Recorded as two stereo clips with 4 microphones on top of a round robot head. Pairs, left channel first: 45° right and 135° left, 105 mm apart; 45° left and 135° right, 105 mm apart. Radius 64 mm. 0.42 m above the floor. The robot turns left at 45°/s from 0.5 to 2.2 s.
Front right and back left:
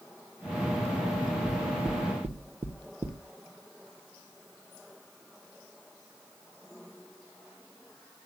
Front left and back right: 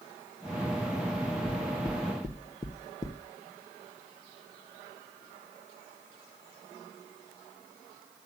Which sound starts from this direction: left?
Knocking, at 1.5 s.